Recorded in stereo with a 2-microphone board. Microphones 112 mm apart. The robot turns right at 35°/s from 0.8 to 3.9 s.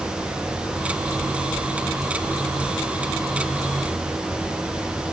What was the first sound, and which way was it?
Only background noise.